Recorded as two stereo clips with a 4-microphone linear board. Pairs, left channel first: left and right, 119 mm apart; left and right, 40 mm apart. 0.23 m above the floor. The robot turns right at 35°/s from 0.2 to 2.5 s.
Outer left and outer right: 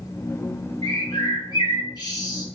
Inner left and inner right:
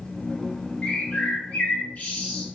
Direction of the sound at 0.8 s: 70° left.